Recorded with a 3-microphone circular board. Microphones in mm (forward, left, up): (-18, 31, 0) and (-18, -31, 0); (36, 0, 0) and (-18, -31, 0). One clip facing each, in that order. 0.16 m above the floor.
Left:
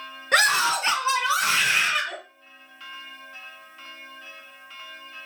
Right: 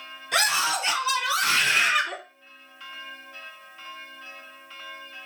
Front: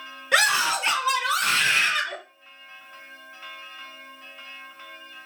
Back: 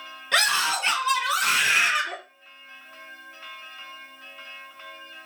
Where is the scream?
105° left, 2.5 m; by 2.2 s 130° right, 1.5 m.